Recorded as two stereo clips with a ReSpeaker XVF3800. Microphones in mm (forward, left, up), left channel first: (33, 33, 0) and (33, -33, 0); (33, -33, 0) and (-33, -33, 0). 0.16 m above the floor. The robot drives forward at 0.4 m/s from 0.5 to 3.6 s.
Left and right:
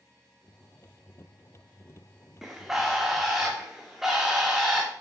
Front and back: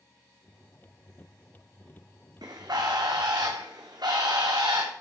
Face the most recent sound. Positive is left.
turn(degrees=-175)